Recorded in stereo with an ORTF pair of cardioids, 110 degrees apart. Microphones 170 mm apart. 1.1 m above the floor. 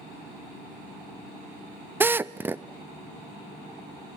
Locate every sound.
2.0 s a drill: 10° right, 0.6 m